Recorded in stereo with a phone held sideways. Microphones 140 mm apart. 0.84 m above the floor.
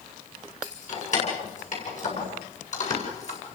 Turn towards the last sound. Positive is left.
turn(degrees=55)  # may be behind; listen again after turning